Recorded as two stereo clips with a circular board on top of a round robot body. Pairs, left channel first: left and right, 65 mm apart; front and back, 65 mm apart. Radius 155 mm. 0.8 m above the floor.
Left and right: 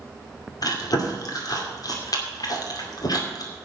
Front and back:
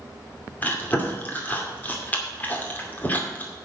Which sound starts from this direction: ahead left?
Chewing, at 0.6 s.